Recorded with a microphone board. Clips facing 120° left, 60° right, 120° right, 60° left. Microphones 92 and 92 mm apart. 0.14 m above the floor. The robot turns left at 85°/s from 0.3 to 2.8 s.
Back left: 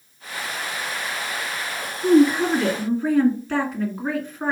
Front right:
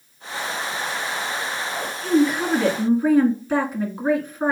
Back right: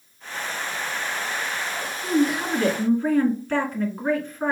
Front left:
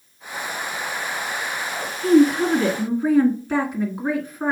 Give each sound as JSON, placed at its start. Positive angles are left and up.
{"t": 2.0, "sound": "a woman speaking", "azimuth_deg": 65, "distance_m": 1.6}